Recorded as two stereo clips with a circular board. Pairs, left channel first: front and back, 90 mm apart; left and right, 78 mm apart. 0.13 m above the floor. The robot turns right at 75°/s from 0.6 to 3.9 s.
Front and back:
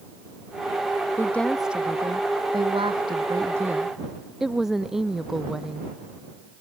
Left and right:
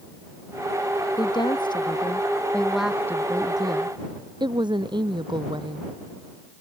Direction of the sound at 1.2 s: 60° left.